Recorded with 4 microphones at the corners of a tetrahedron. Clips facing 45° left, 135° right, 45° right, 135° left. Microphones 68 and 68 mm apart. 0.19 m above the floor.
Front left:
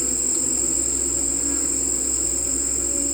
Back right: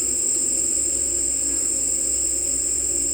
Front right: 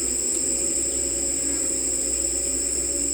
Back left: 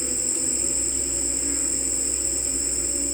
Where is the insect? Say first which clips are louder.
Front left 4 dB, front right 1 dB; 65° left, 4 m.